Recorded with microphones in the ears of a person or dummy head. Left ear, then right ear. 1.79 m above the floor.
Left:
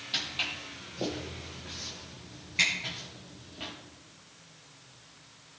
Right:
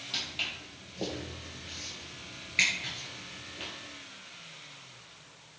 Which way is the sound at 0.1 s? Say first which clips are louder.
Left 2 dB; 5° left (ahead or behind).